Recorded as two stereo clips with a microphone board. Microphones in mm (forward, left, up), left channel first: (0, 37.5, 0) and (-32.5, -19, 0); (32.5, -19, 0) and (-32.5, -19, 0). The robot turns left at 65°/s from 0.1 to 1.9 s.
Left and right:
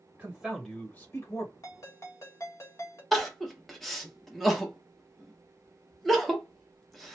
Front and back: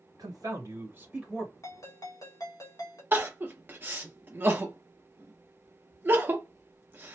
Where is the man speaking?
170° left, 1.4 m; by 1.5 s 80° left, 1.4 m.